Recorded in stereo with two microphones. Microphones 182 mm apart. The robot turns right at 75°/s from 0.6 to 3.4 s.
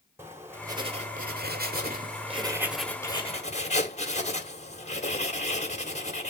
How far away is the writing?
About 1.7 m.